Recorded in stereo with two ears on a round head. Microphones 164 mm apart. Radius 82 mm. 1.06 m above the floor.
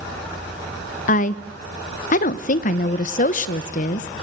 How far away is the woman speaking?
About 0.7 m.